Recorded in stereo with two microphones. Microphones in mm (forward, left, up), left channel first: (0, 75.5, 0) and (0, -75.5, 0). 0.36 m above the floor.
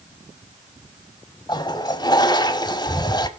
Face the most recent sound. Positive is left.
turn(degrees=30)  # may be behind; listen again after turning